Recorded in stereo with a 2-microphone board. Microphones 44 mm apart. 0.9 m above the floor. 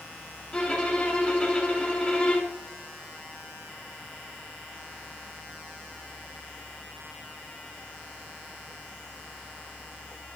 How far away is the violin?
About 2 m.